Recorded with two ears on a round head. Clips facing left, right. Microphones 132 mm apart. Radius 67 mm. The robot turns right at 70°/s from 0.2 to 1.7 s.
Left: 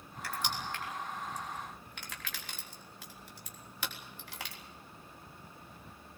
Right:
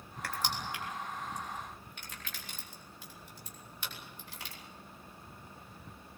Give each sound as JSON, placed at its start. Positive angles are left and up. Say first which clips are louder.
{"t": 0.2, "sound": "crushing", "louder": "right 1 dB", "side_deg": -45, "distance_m": 3.5}